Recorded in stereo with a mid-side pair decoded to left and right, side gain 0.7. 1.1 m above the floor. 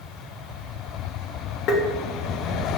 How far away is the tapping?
About 1.1 m.